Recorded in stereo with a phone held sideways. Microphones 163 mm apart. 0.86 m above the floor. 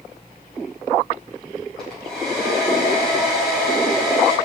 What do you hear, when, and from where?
1.8 s a hair dryer: 5° left (ahead or behind), 5 m